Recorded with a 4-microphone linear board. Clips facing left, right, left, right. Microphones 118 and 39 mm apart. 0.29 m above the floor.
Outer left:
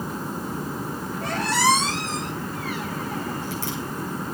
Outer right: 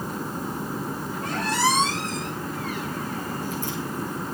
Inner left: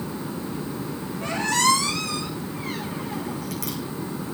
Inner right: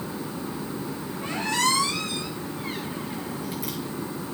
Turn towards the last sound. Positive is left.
turn(degrees=75)  # may be behind; listen again after turning